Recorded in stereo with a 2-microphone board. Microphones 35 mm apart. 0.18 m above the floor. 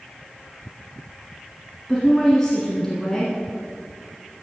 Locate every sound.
1.9 s a woman speaking: 10° left (ahead or behind), 1.7 m